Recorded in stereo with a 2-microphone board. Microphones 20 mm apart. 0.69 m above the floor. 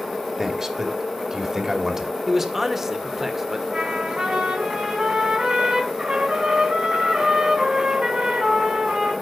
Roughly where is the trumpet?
Right.